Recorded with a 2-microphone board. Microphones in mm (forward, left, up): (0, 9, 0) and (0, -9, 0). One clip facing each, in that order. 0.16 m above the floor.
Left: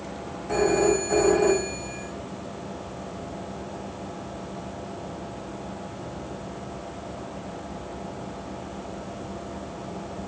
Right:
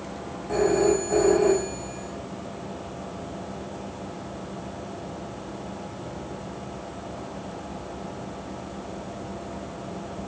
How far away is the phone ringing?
About 7.5 m.